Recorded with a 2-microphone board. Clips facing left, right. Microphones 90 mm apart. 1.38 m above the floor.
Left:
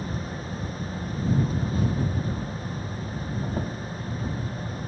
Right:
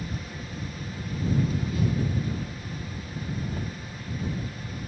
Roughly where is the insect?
Left.